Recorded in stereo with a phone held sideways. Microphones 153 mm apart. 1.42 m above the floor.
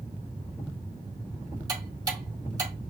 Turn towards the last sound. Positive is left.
turn(degrees=-25)  # may be behind; listen again after turning